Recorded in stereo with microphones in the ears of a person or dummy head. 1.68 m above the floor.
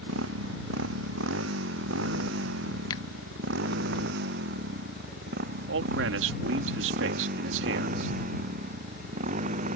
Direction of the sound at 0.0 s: 80° right.